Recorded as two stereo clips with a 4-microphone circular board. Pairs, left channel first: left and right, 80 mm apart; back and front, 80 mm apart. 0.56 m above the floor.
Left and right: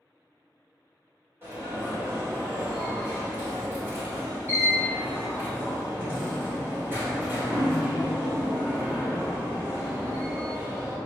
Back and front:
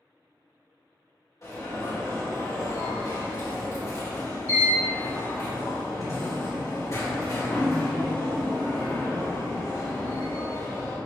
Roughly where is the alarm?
Behind right.